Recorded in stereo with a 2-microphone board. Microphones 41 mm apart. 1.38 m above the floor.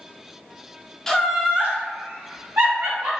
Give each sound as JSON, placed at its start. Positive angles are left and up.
{"t": 1.1, "sound": "laughter", "side_deg": 10, "distance_m": 0.5}